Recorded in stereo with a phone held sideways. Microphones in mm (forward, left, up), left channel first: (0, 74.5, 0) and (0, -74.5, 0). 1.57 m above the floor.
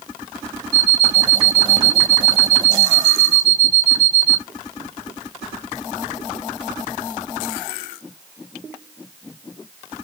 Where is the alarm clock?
25° right (ahead or behind), 1.6 m.